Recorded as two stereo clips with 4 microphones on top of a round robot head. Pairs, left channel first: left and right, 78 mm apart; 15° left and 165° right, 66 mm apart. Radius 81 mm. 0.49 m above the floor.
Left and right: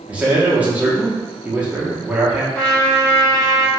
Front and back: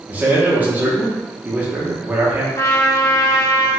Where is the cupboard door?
No cupboard door in this recording.